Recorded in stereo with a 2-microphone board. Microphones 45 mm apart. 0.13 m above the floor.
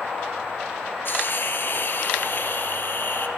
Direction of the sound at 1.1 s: 50° left (ahead or behind).